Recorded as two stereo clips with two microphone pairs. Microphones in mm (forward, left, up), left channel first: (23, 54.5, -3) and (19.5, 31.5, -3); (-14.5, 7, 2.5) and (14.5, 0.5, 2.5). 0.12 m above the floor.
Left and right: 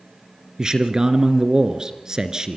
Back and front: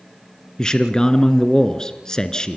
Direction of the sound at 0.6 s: 145° right.